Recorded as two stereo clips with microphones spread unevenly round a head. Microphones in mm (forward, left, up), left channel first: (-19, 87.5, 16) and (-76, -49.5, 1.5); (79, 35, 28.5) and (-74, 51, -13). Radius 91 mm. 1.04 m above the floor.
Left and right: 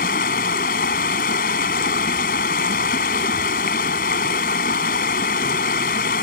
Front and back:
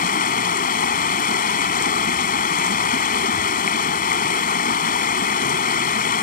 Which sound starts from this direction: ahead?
Running water, at 0.0 s.